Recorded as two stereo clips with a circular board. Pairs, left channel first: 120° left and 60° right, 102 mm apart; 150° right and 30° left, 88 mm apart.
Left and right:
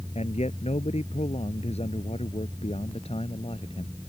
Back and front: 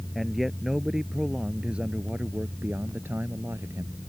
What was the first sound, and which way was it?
A man speaking, 120° left.